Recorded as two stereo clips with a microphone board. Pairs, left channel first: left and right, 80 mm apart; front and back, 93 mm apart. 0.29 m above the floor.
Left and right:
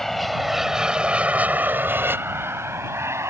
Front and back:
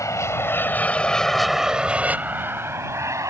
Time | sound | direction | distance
0.0 | an aircraft | 5° left | ?